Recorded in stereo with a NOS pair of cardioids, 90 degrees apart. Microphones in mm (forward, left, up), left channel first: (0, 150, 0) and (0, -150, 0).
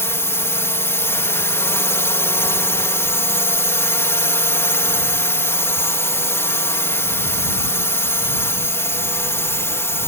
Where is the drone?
10° left.